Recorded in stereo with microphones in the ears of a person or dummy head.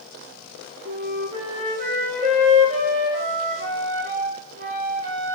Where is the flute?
45° right (ahead or behind), 1.4 m.